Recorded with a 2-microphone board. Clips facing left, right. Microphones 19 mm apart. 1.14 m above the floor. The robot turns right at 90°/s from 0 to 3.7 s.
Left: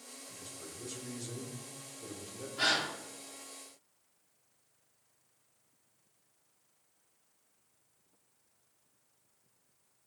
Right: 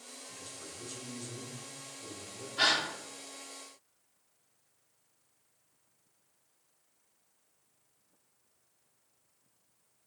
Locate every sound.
0.3 s a man speaking: 65° right, 0.6 m; by 2.5 s 130° left, 0.6 m
2.6 s a gasp: 30° right (ahead or behind), 0.8 m; by 2.9 s 20° right (ahead or behind), 0.8 m